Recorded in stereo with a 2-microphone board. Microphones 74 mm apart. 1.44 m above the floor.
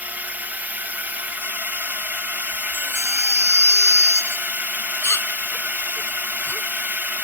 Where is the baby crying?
35° left (ahead or behind).